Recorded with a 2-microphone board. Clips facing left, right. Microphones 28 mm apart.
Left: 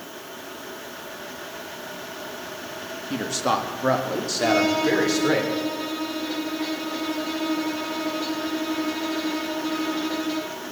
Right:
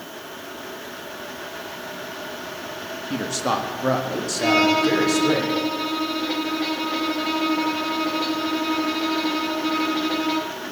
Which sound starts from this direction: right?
A violin, at 4.4 s.